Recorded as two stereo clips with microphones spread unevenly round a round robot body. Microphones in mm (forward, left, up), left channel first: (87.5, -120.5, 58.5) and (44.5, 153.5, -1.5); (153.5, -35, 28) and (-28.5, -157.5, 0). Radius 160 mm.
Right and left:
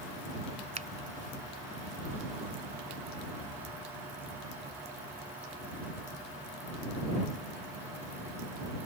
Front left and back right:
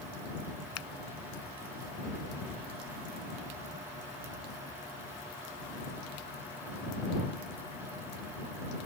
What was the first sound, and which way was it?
A finger snap, 30° left.